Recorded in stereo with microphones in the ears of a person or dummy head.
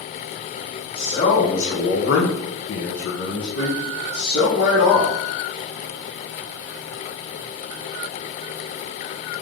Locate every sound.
0.9 s a man speaking: 35° left (ahead or behind), 1.1 m; by 5.2 s 45° left (ahead or behind), 1.8 m